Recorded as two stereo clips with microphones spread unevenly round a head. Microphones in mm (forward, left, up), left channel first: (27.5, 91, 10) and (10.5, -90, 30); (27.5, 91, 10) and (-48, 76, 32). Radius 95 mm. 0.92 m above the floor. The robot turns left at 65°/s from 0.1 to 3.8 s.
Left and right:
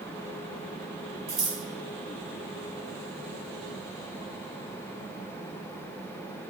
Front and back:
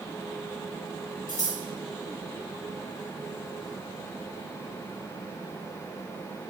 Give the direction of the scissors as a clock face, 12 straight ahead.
2 o'clock.